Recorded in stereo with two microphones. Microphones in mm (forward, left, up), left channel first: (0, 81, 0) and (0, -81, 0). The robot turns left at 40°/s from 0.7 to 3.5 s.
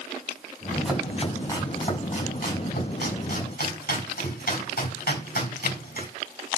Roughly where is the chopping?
Centre.